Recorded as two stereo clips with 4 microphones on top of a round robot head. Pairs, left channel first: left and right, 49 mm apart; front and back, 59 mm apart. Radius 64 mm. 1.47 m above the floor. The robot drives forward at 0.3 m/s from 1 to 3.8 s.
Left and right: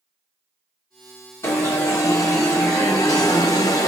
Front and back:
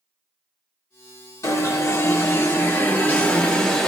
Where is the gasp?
I don't hear a gasp.